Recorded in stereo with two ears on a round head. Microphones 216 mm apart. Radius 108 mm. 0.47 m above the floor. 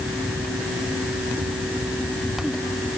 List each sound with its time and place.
Only background noise.